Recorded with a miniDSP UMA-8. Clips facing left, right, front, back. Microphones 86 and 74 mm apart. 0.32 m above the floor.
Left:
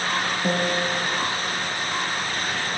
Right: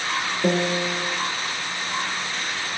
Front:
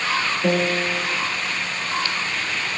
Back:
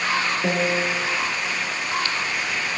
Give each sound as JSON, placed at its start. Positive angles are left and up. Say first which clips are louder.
{"t": 0.4, "sound": "a piano", "louder": "right 4 dB, front 4 dB", "azimuth_deg": -110, "distance_m": 7.0}